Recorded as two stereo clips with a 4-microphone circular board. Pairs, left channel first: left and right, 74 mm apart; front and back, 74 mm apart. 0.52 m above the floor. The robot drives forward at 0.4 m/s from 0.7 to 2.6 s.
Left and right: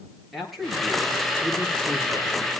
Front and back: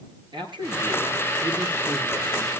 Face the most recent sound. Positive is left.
turn(degrees=180)